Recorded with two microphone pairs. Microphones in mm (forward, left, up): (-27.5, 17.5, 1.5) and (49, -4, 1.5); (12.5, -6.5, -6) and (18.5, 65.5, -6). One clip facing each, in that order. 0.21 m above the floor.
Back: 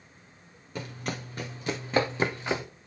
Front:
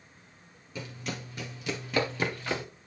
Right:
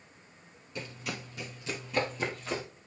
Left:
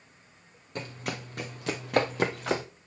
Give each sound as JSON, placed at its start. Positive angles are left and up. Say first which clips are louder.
{"t": 0.8, "sound": "running footsteps", "louder": "back 3 dB, left 3 dB", "azimuth_deg": 125, "distance_m": 1.8}